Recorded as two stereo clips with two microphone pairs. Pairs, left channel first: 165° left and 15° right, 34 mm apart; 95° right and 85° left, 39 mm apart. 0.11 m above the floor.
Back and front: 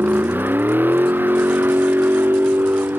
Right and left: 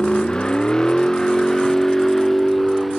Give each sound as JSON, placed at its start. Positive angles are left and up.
{"t": 0.0, "sound": "a vehicle", "azimuth_deg": -30}